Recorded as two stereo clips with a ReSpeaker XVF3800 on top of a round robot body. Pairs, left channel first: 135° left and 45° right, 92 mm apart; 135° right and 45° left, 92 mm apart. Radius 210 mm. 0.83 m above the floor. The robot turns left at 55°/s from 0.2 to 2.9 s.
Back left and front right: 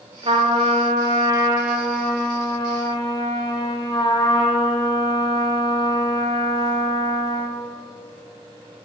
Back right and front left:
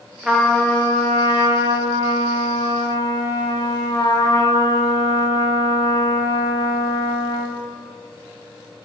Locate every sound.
0.2 s a trumpet: 40° right, 1.6 m; by 7.6 s 175° left, 1.6 m